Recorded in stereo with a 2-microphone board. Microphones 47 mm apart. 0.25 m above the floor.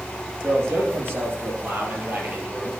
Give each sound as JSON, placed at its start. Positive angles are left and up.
{"t": 0.4, "sound": "a man speaking", "side_deg": -55, "distance_m": 5.0}